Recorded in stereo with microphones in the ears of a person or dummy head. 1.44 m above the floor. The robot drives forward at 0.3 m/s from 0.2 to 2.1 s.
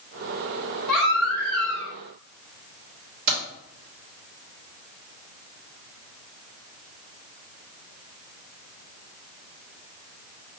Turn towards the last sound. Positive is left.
turn(degrees=-50)  # may be behind; listen again after turning